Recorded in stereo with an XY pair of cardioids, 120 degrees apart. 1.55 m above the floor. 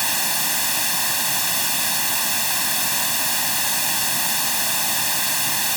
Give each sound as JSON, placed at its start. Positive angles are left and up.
{"t": 0.0, "sound": "running water", "azimuth_deg": 0}